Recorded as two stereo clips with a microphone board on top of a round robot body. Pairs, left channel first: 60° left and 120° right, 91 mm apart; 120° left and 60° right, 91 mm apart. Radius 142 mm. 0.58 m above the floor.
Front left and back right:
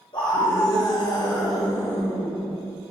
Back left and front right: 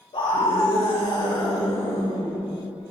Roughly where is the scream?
Left.